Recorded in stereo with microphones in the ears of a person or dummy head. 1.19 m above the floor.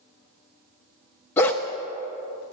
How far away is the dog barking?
About 0.6 m.